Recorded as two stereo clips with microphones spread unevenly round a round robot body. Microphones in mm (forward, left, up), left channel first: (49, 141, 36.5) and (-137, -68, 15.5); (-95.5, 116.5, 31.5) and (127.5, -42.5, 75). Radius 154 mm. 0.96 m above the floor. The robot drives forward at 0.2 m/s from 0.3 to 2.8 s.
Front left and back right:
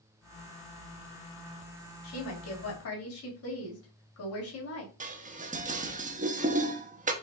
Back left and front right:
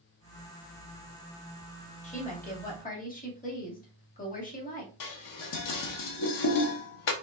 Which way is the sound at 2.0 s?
80° left.